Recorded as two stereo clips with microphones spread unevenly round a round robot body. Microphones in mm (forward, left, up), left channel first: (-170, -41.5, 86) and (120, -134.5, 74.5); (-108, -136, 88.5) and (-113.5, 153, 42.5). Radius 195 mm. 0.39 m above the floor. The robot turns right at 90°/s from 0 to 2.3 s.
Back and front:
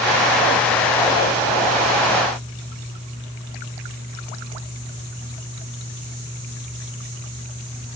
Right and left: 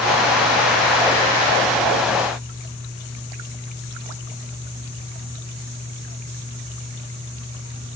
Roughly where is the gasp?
I don't hear a gasp.